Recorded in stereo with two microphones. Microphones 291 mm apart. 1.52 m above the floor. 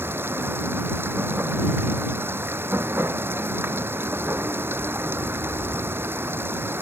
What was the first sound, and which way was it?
Running water, 5° right (ahead or behind).